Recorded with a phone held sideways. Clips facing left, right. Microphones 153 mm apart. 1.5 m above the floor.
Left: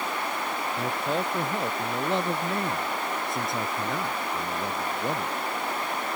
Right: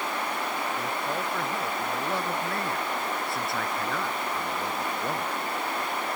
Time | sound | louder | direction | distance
0.8 | a man speaking | left 3 dB | 25° left (ahead or behind) | ?